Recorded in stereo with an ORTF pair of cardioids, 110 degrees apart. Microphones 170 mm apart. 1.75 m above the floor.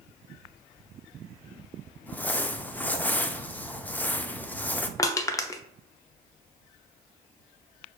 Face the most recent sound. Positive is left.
turn(degrees=20)